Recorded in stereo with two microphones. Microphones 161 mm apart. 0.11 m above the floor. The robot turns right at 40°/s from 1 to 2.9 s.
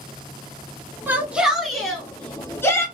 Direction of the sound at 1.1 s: 10° right (ahead or behind).